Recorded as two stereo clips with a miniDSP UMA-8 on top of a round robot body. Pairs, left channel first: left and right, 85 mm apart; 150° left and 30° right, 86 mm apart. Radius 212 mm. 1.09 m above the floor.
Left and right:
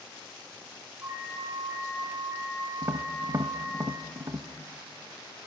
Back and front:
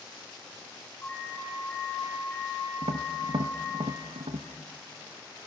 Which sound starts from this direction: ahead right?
Tapping, at 2.8 s.